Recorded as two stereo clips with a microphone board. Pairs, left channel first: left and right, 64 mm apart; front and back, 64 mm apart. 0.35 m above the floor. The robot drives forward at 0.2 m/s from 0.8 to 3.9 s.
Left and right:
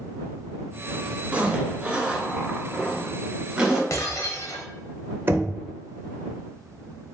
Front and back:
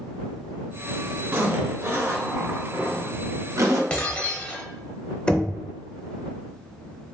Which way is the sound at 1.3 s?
140° right.